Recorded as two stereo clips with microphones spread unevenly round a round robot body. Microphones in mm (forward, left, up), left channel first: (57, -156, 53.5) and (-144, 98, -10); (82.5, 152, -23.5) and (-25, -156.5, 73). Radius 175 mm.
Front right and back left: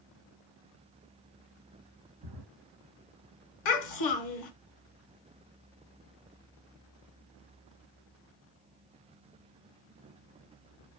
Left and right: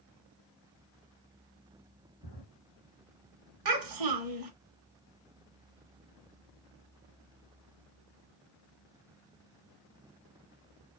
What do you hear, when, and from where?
2.2 s a drawer: 140° left, 1.2 m
3.6 s a child speaking: 80° right, 1.0 m